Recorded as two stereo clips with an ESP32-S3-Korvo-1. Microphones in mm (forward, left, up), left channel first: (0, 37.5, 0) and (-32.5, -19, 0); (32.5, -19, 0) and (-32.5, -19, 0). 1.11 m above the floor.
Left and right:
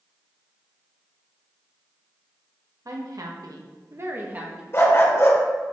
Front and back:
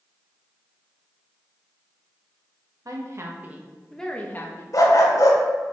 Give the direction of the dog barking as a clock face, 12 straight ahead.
11 o'clock.